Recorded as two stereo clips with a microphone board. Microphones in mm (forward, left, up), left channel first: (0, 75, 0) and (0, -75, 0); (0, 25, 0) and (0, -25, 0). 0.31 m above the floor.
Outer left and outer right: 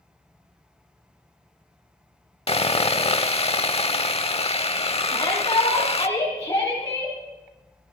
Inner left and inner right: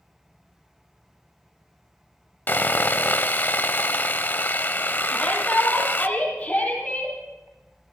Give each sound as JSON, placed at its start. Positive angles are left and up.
{"t": 2.5, "sound": "sawing", "side_deg": 40, "distance_m": 0.7}
{"t": 5.1, "sound": "a shout", "side_deg": 25, "distance_m": 7.5}